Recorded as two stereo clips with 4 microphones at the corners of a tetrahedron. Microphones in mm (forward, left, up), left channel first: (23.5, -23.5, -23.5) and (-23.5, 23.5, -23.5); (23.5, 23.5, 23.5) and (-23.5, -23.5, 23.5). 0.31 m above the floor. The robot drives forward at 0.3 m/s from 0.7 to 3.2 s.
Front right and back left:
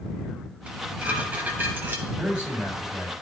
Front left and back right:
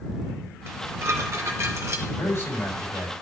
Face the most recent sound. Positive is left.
turn(degrees=75)